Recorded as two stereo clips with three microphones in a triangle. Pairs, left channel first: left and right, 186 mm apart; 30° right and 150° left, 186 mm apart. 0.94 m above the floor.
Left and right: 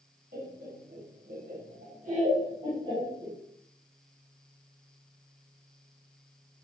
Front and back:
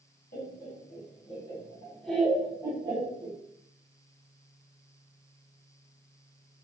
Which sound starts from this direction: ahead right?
Laughter, at 0.3 s.